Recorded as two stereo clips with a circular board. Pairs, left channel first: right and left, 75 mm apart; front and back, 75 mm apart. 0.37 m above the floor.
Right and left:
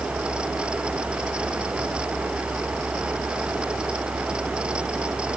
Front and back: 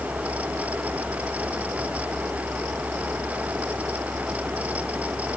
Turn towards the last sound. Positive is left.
No sound to turn to.